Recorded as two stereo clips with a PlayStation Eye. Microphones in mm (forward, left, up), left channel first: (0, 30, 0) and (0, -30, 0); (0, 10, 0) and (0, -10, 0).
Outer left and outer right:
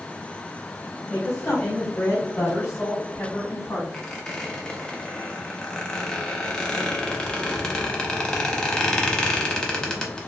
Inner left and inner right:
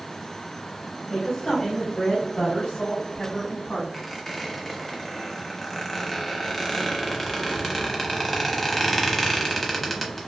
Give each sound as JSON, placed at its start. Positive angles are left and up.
{"t": 1.1, "sound": "a woman speaking", "side_deg": 20, "distance_m": 1.2}
{"t": 3.9, "sound": "a squeak", "side_deg": 10, "distance_m": 0.8}